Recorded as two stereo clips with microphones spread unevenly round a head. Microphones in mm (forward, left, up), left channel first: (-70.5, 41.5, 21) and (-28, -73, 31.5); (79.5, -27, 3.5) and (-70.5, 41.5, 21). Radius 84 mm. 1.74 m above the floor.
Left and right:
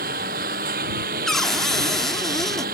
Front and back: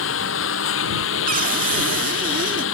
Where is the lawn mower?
35° right.